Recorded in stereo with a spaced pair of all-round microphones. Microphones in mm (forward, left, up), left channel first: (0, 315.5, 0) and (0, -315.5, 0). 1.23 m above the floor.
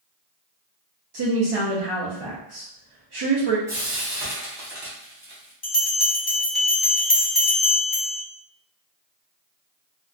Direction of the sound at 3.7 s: 5° right (ahead or behind).